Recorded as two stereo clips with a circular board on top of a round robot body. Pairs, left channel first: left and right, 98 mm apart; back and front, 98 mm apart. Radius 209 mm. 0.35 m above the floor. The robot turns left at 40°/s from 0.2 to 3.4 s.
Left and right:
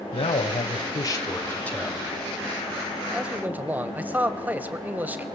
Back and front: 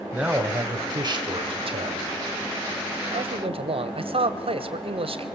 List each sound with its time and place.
0.1 s a man speaking: 75° left, 3 m; by 2.0 s 5° left, 3 m
3.1 s a man speaking: 5° right, 2.5 m; by 5.3 s 15° right, 2.5 m